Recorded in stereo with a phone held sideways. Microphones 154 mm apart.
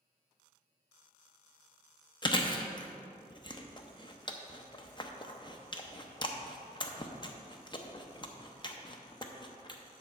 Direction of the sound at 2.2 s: 30° left (ahead or behind).